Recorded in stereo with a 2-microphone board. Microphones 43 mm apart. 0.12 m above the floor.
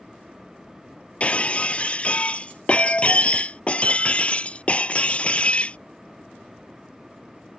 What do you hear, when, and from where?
1.2 s breaking glass: 30° left (ahead or behind)